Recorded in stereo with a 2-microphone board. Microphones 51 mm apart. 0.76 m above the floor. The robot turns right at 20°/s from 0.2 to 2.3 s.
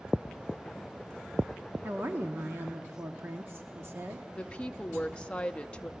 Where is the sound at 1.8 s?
40° right (ahead or behind), 1.1 m; by 4.2 s 50° right (ahead or behind), 1.1 m.